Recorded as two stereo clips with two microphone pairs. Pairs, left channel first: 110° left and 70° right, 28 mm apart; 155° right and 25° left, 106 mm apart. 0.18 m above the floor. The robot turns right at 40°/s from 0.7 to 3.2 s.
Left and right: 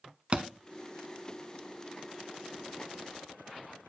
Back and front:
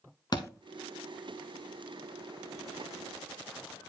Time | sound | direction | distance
0.3 | a thud | 115° right | 0.6 m